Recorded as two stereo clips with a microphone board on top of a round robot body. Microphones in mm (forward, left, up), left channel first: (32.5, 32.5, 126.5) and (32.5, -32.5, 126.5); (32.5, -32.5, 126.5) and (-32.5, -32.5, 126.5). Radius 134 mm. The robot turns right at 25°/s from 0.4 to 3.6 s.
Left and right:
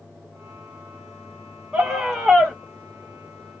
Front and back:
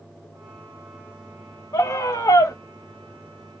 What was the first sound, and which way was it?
A scream, 5° right.